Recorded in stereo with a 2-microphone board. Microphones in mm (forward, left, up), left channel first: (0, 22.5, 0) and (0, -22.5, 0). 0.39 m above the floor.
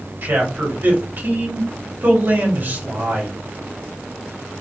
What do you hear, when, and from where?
0.2 s a man speaking: 50° right (ahead or behind), 2 m